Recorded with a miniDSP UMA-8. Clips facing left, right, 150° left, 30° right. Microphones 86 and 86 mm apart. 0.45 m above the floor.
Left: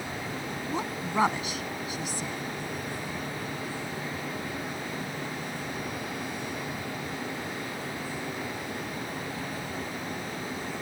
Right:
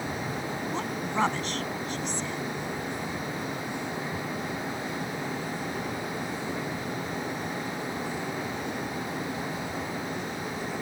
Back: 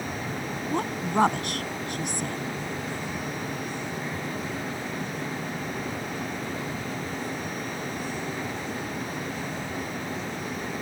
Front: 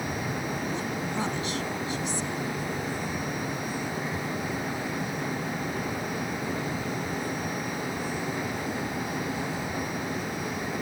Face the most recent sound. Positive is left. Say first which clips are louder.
# left 2 dB, back 4 dB
turn(degrees=170)